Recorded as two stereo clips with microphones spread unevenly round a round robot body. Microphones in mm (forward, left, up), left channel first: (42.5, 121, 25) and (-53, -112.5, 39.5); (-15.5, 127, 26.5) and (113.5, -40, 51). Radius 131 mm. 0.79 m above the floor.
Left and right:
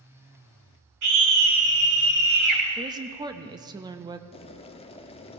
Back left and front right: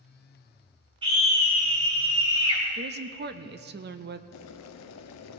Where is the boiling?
135° left, 0.6 m.